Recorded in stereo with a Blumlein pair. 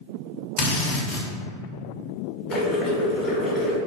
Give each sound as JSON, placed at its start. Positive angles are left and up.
{"t": 0.6, "sound": "a drill", "azimuth_deg": 40, "distance_m": 0.9}
{"t": 2.5, "sound": "boiling", "azimuth_deg": 30, "distance_m": 1.3}